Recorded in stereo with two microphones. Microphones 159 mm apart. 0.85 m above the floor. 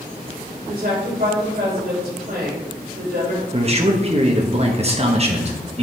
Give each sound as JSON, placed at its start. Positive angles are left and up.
{"t": 0.7, "sound": "a woman speaking", "side_deg": -70, "distance_m": 3.5}
{"t": 3.5, "sound": "a man speaking", "side_deg": -40, "distance_m": 1.0}